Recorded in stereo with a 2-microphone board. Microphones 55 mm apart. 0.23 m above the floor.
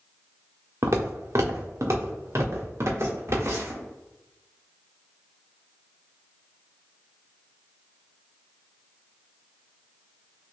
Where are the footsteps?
70° right (ahead or behind), 0.8 m; by 3.8 s 55° right (ahead or behind), 2.5 m.